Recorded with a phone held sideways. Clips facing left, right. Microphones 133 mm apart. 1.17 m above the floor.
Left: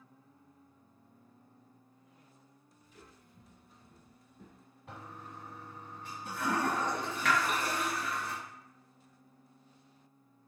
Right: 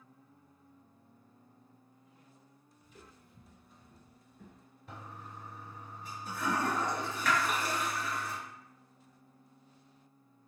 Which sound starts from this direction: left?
A toilet flushing, at 4.9 s.